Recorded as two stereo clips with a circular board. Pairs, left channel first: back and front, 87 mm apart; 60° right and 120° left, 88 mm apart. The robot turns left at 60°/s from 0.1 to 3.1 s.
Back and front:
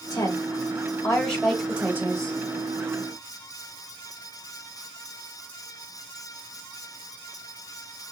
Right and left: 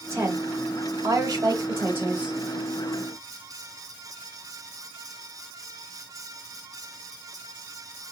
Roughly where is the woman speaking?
Behind.